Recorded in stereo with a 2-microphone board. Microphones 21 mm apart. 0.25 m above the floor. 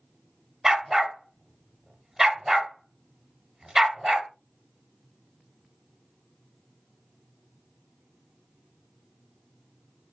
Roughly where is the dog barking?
Right.